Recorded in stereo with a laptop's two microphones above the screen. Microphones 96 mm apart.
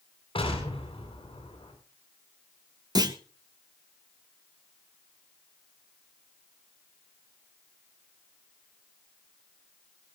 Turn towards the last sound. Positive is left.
turn(degrees=-40)  # may be behind; listen again after turning